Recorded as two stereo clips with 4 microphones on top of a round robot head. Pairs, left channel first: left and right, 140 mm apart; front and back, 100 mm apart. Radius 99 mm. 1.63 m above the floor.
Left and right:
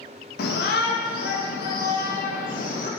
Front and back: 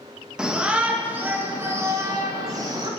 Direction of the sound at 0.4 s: 100° left.